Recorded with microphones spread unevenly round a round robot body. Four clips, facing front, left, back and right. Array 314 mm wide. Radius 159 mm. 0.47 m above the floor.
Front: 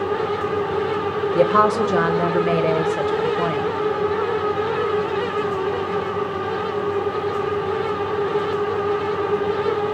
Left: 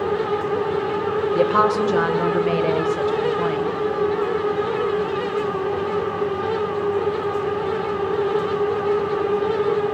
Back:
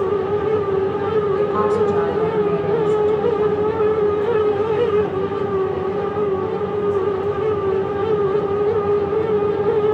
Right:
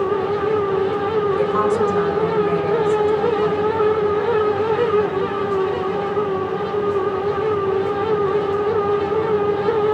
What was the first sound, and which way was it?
A woman speaking, 20° left.